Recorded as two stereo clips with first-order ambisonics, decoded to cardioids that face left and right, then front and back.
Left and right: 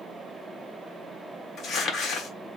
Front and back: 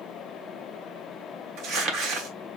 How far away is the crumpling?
About 1.4 m.